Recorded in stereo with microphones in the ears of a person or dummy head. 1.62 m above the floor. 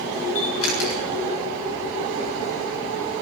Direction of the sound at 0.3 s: 75° left (ahead or behind).